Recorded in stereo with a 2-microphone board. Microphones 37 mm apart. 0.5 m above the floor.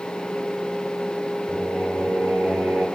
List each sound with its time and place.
1.5 s singing: 85° right, 2 m